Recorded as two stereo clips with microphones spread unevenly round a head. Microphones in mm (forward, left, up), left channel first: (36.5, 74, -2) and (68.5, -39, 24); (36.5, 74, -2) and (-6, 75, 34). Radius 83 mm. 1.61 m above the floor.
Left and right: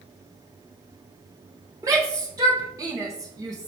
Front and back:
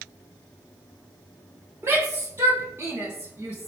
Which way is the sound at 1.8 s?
140° right.